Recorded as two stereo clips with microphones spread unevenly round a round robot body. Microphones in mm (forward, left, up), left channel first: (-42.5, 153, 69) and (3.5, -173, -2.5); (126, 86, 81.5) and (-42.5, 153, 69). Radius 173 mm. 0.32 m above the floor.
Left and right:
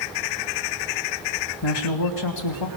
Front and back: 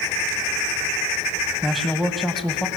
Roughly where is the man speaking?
Left.